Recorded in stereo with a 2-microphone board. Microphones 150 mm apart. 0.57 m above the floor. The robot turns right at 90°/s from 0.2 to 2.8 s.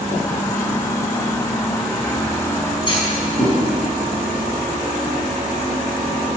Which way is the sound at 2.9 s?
30° left (ahead or behind).